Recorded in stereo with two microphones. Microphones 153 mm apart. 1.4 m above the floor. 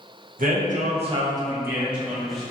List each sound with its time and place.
0.4 s a man speaking: 65° right (ahead or behind), 0.7 m; by 2.5 s centre (ahead or behind), 1.4 m